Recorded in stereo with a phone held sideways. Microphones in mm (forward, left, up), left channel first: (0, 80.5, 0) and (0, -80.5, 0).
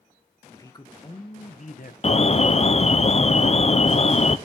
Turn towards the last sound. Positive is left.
turn(degrees=40)  # may be behind; listen again after turning